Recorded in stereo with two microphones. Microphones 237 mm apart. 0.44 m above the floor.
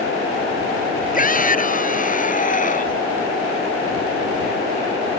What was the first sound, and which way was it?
A shout, 35° left (ahead or behind).